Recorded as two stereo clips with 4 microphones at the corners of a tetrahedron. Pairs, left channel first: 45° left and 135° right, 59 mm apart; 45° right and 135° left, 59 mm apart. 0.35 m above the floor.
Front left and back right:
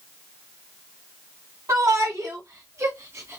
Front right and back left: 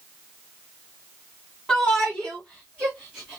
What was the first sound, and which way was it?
A shout, 125° right.